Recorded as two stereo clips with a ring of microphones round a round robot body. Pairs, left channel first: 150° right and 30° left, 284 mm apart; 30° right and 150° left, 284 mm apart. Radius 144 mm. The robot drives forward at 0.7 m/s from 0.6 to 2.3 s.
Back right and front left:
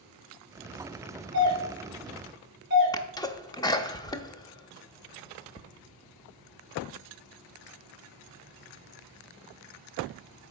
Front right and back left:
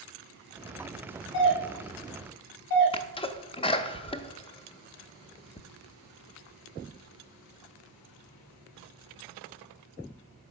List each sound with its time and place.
1.3 s a doorbell: 10° right, 3 m; by 3.0 s 15° right, 2.5 m
2.9 s a sneeze: 85° right, 0.6 m